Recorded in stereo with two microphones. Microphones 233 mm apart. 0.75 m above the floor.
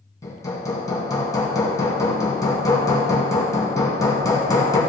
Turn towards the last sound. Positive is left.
turn(degrees=15)  # may be behind; listen again after turning